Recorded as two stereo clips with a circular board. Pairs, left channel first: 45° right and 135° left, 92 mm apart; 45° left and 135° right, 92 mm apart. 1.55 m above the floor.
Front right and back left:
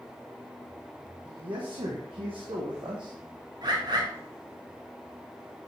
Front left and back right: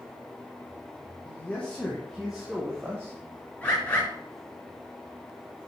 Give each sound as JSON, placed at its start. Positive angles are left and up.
{"t": 1.2, "sound": "a man speaking", "azimuth_deg": 115, "distance_m": 1.7}
{"t": 3.6, "sound": "a bird", "azimuth_deg": 115, "distance_m": 2.5}